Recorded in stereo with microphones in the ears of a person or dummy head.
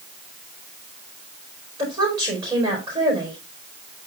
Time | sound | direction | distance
1.8 | a woman speaking | 20° right (ahead or behind) | 5 m